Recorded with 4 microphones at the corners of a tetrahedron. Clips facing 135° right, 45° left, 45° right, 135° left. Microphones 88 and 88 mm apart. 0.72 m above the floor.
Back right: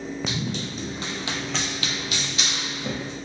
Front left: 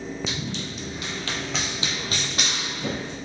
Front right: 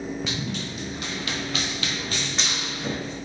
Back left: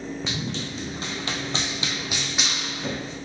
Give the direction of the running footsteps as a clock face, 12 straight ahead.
5 o'clock.